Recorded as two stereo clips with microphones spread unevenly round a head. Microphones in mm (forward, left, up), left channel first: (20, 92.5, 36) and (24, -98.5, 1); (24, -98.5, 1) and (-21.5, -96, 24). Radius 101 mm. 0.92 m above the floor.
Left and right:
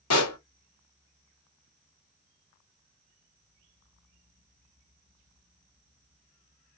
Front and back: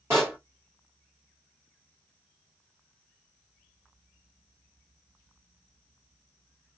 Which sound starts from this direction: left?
A pop, at 0.1 s.